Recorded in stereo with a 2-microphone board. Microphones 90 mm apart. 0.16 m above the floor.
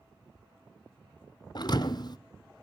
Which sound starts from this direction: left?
A thud, at 1.6 s.